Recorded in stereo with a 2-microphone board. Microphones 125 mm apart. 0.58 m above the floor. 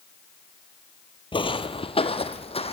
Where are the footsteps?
40° left (ahead or behind), 1.0 m; by 2.7 s 50° left (ahead or behind), 1.9 m.